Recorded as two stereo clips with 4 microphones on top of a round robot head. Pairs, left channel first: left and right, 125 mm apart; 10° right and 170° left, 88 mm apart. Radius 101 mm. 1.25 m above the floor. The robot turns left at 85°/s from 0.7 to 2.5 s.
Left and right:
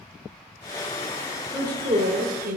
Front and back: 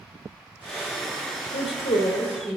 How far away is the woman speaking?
About 1.0 m.